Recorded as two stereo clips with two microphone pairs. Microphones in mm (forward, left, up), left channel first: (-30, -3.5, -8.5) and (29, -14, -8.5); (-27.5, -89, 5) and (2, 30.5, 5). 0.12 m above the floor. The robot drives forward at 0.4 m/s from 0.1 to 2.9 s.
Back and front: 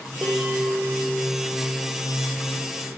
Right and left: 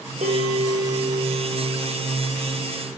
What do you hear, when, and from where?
0.2 s a bell: 60° left, 5 m; by 2.8 s 70° left, 5 m